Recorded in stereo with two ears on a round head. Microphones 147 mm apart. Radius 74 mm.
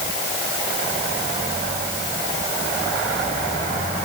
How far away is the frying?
No frying in this recording.